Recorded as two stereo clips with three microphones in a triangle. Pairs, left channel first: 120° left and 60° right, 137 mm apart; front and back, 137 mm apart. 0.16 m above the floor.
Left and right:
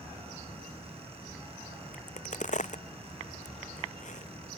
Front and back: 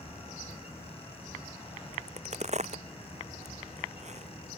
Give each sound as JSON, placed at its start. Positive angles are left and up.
{"t": 1.9, "sound": "a crack", "azimuth_deg": 145}